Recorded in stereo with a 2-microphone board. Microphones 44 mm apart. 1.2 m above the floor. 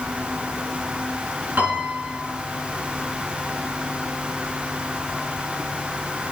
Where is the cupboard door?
No cupboard door in this recording.